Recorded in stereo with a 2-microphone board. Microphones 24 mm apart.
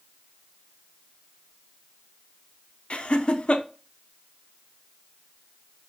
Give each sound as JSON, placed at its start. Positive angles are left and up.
{"t": 2.9, "sound": "laughter", "side_deg": 50, "distance_m": 0.6}